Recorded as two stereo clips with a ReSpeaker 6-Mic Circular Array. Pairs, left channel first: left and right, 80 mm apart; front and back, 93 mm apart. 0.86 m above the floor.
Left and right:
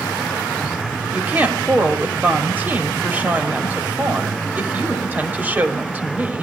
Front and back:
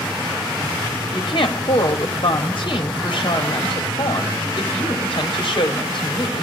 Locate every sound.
1.1 s a woman speaking: 25° right, 2.5 m